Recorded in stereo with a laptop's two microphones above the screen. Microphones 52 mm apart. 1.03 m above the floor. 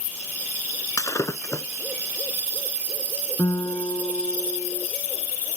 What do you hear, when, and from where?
1.0 s breaking glass: 80° left
3.4 s a guitar: 75° left (ahead or behind)